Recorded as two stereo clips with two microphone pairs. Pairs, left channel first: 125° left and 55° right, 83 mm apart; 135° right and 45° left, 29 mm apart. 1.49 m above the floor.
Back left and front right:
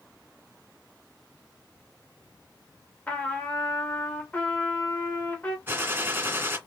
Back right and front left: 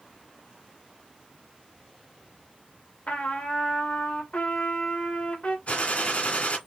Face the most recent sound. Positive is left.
turn(degrees=-115)